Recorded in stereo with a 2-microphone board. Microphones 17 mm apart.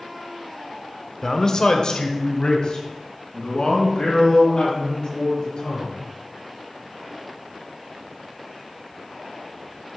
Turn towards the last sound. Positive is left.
turn(degrees=60)  # may be behind; listen again after turning